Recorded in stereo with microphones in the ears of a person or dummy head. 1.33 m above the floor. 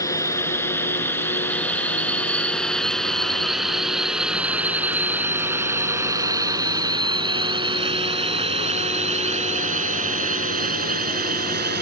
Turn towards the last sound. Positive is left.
turn(degrees=-45)  # may be behind; listen again after turning